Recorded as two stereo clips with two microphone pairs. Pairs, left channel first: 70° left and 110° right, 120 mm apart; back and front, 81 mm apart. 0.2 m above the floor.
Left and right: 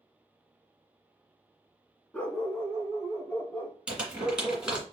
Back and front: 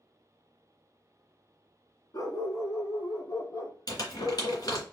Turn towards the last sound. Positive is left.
turn(degrees=170)